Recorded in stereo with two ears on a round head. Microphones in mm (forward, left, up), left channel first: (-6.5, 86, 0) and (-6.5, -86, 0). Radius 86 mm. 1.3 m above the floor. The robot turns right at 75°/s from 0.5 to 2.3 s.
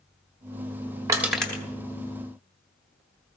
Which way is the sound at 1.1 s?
20° right (ahead or behind).